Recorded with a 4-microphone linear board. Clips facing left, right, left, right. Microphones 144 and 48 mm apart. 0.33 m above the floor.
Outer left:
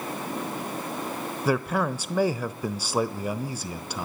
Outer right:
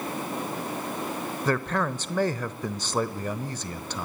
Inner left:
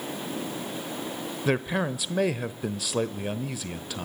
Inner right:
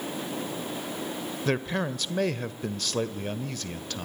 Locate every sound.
1.4 s a man speaking: 10° left (ahead or behind), 0.9 m